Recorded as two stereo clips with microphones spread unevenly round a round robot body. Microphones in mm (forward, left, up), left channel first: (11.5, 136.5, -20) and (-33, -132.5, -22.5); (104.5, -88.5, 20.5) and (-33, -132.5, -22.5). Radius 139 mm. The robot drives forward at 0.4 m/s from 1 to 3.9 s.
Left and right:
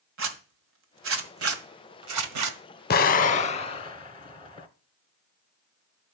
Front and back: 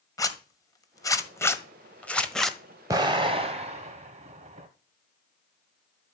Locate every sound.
0.2 s a zipper: 55° right, 1.7 m; by 2.6 s 80° right, 1.4 m
2.9 s an explosion: 135° left, 0.7 m; by 4.7 s 150° left, 1.0 m